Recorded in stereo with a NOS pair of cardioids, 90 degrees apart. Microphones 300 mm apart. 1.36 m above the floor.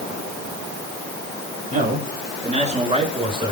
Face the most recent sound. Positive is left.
turn(degrees=-15)